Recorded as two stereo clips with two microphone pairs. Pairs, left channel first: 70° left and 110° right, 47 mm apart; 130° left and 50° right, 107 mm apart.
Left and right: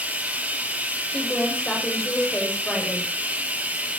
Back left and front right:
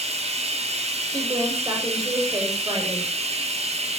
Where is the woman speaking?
Straight ahead, 6.5 m.